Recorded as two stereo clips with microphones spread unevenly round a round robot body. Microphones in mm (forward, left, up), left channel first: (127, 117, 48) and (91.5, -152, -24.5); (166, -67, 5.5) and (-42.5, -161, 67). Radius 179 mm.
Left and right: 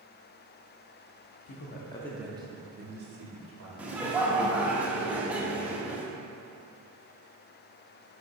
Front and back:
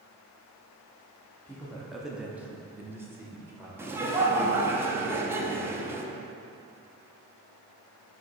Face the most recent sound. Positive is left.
turn(degrees=-55)